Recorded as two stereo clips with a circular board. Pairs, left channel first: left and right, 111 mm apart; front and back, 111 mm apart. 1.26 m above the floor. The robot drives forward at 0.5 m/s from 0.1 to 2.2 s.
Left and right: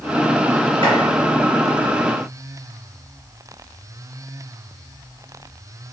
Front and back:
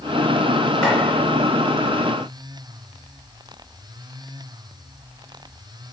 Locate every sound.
0.8 s chopping: 80° right, 2.0 m; by 1.0 s 85° right, 2.0 m